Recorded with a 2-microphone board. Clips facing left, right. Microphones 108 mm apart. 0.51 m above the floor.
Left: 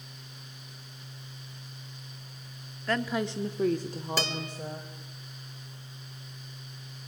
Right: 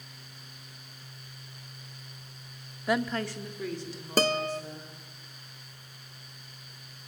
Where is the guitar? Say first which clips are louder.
Right 11 dB; 45° right (ahead or behind), 0.6 m.